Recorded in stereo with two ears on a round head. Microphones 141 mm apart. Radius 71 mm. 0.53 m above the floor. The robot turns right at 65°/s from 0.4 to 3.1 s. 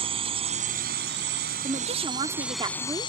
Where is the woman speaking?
120° right; by 3.1 s 25° right.